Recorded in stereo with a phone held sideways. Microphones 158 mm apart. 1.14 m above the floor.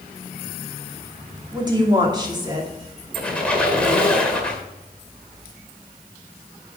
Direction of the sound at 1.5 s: 25° right (ahead or behind).